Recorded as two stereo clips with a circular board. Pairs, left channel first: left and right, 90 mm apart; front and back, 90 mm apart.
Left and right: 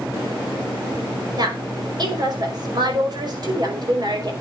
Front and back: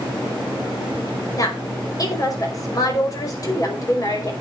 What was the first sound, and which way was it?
A woman speaking, 50° right.